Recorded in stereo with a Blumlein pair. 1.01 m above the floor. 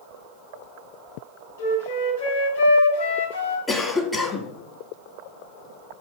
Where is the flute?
65° left, 3 m.